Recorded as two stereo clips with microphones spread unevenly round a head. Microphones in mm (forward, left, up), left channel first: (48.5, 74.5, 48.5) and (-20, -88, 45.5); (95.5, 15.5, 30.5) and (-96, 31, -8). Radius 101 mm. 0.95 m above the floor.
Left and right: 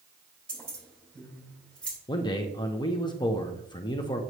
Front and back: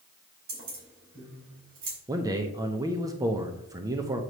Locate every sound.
0.5 s keys jangling: 150° left, 3.5 m
2.1 s a man speaking: 125° left, 0.7 m